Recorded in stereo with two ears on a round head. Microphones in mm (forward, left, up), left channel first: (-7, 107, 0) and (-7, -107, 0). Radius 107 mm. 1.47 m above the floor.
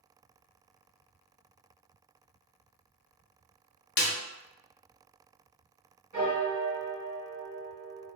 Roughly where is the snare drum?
Left.